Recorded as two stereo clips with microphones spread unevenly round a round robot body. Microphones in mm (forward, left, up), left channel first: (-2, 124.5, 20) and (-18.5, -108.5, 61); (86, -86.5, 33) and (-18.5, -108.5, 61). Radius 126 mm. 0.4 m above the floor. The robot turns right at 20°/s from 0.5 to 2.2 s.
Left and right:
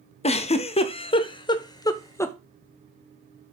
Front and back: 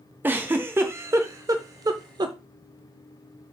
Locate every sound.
0.2 s a giggle: 110° left, 0.6 m; by 2.4 s 145° left, 0.6 m